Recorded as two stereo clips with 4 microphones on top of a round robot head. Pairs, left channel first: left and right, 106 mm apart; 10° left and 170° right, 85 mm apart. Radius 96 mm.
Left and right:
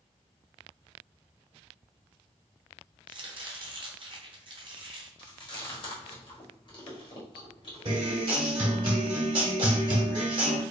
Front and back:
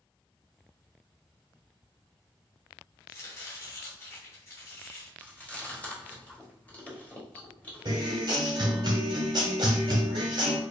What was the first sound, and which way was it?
Chopping, 50° right.